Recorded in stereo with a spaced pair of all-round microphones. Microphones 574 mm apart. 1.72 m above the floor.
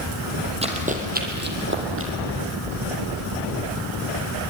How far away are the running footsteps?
About 3 m.